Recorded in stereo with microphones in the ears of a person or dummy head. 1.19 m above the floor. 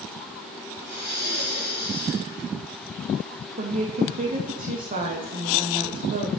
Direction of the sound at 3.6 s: 40° right (ahead or behind).